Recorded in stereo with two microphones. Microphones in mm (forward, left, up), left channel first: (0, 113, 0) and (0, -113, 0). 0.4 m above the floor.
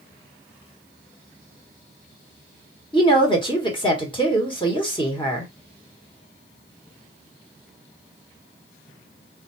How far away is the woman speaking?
About 1.1 m.